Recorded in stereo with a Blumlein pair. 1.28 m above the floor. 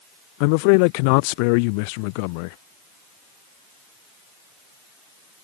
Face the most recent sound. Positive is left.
turn(degrees=45)